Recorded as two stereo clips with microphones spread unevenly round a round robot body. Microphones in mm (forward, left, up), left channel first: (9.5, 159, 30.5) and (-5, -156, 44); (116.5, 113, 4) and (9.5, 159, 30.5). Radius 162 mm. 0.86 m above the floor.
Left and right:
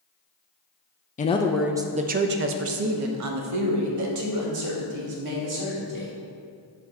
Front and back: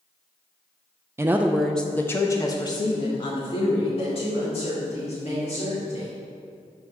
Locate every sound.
1.2 s a woman speaking: 85° left, 0.5 m; by 6.1 s 65° right, 2.5 m